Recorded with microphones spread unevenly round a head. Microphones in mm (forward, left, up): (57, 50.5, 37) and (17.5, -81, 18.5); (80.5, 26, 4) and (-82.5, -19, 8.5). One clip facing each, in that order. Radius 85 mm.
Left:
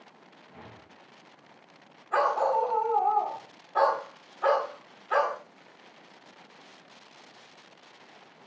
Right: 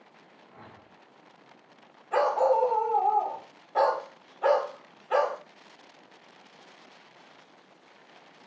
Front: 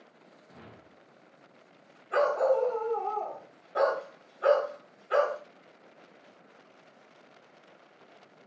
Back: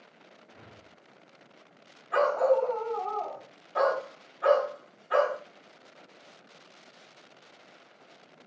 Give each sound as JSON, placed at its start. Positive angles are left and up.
{"t": 0.5, "sound": "a whoosh", "azimuth_deg": 5, "distance_m": 1.1}
{"t": 2.1, "sound": "a dog barking", "azimuth_deg": -35, "distance_m": 2.5}